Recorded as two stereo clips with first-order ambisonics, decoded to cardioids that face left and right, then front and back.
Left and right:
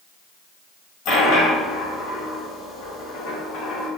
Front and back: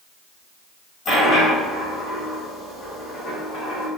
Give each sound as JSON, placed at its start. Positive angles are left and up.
{"t": 1.1, "sound": "a dropped coin", "azimuth_deg": 65, "distance_m": 1.8}